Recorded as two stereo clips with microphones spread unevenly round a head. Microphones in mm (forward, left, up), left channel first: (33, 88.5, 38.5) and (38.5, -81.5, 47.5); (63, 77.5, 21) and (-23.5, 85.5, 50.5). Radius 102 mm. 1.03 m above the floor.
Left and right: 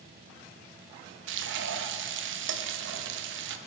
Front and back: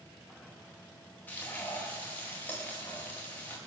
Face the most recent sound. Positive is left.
turn(degrees=-85)